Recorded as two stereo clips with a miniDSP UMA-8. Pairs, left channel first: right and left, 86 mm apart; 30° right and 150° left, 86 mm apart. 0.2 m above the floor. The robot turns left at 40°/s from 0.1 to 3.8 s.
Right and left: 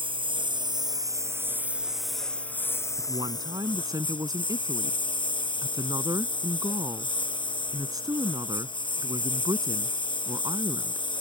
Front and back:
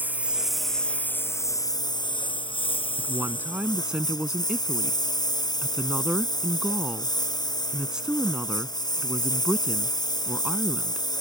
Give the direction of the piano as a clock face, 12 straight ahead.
I don't hear a piano.